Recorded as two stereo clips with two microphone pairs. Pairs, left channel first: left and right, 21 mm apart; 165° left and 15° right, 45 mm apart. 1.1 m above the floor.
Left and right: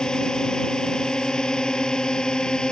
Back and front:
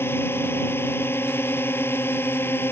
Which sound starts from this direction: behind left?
A drone, at 0.0 s.